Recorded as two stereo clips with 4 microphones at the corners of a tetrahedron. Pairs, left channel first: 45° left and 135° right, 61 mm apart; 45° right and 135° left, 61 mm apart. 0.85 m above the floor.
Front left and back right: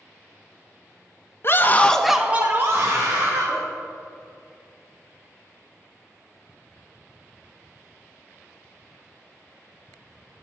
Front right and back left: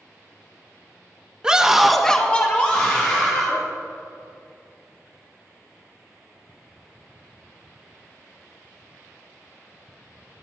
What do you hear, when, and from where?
1.4 s a scream: 65° left, 0.7 m; by 3.6 s 105° right, 1.4 m